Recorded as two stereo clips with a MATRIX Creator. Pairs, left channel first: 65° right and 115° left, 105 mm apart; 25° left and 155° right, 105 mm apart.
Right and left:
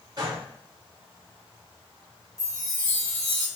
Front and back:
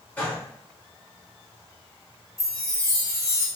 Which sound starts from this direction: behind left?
A chime, at 2.4 s.